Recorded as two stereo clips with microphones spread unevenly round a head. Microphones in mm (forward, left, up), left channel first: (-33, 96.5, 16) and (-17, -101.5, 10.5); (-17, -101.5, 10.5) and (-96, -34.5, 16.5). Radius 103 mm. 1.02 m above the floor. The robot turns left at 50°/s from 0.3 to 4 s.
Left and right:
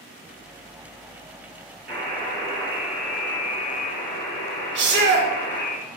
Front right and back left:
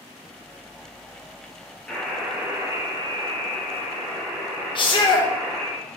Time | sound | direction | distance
1.9 | a buzzer | 125° right | 3.5 m
4.8 | a shout | 65° right | 1.0 m